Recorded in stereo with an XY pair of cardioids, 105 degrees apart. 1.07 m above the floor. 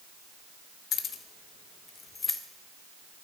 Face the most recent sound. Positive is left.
turn(degrees=25)